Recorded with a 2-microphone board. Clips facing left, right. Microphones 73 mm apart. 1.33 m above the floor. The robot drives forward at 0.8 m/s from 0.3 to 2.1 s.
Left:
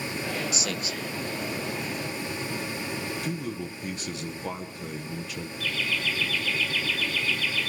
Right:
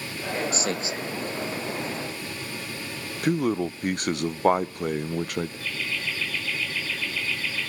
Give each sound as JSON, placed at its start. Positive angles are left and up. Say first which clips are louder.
{"t": 0.5, "sound": "a man speaking", "louder": "right 4 dB", "side_deg": -40, "distance_m": 0.5}
{"t": 3.2, "sound": "a man speaking", "louder": "right 9 dB", "side_deg": -60, "distance_m": 0.7}
{"t": 5.6, "sound": "laughter", "louder": "left 2 dB", "side_deg": -30, "distance_m": 6.5}